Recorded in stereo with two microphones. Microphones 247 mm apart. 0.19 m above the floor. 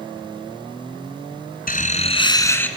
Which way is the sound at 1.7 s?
35° left (ahead or behind).